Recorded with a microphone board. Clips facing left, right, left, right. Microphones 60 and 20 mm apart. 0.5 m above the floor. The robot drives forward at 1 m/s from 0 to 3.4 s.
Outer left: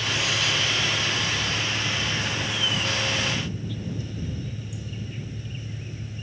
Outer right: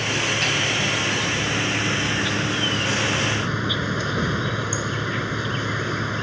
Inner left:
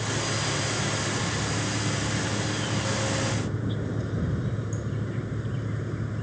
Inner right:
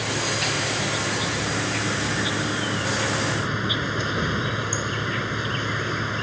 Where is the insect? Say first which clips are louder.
Outer right 3 dB, inner right 4 dB; 45° right (ahead or behind); by 6.2 s 80° right.